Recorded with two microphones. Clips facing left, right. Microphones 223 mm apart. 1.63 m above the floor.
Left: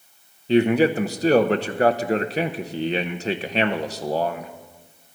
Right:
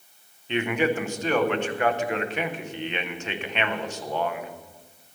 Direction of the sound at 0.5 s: 35° left (ahead or behind).